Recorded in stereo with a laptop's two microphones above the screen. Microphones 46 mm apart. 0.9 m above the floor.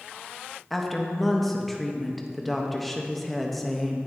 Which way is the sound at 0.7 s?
Centre (ahead or behind).